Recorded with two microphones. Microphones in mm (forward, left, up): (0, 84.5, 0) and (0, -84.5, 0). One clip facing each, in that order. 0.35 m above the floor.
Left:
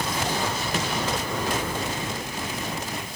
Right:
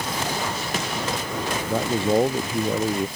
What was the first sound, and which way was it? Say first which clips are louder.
A man speaking: right 9 dB; 70° right (ahead or behind).